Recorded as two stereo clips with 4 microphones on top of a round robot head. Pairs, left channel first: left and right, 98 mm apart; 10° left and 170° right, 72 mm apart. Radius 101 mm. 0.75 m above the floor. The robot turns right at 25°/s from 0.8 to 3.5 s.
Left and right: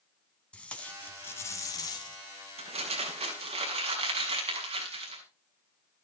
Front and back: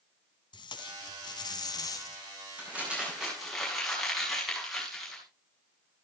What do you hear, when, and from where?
0.5 s tape being pulled: 10° left, 2 m; by 2.2 s 50° left, 2 m
2.6 s crumpling: 105° right, 6.5 m; by 5.2 s 80° right, 6.5 m